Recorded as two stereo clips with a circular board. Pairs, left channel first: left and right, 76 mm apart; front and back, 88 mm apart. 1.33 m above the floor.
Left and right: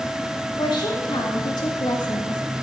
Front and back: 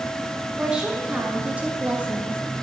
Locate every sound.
0.6 s a woman speaking: 100° left, 2.5 m; by 2.4 s 110° left, 1.8 m